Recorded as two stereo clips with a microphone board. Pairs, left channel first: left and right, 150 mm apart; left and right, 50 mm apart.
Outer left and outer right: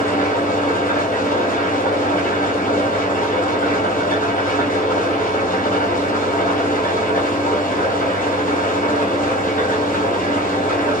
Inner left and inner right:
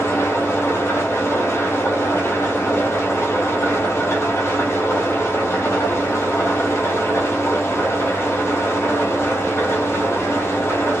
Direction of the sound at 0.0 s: 65° left (ahead or behind).